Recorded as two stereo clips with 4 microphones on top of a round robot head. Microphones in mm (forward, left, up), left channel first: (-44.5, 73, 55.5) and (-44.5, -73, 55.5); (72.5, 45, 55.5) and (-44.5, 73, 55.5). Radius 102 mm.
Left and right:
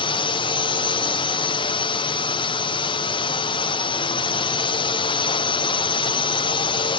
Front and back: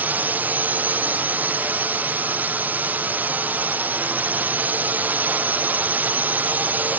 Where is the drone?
100° left.